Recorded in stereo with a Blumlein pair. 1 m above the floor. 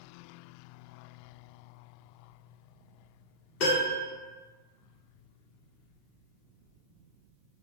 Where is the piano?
40° left, 1.1 m.